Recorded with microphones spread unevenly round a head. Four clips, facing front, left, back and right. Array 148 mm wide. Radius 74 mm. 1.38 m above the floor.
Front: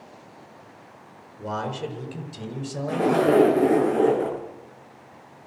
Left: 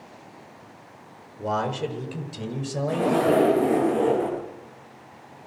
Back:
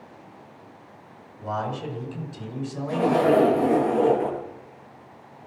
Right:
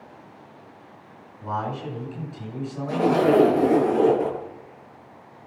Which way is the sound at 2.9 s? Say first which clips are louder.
Right 2 dB, even; 25° right.